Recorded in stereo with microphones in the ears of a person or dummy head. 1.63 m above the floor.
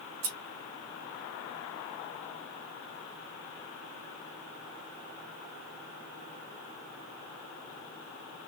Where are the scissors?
45° right (ahead or behind), 1.8 m.